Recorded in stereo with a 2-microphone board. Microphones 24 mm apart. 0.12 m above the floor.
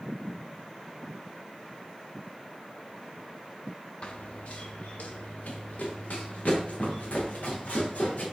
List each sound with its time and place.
4.0 s running footsteps: 45° left (ahead or behind), 1.0 m; by 8.2 s 85° left, 4.5 m